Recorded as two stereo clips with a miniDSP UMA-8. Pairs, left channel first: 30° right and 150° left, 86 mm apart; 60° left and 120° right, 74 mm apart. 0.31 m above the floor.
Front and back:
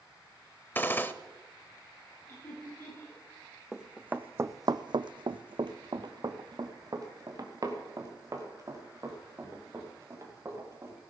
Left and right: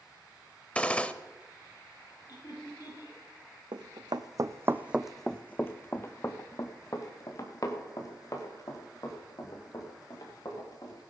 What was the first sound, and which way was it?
A gunshot, 10° left.